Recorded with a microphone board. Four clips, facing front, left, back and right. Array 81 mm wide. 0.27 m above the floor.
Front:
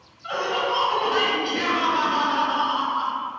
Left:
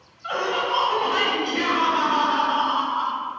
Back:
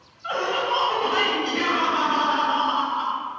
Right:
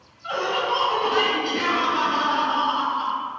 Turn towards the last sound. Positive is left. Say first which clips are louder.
# even, even
turn(degrees=135)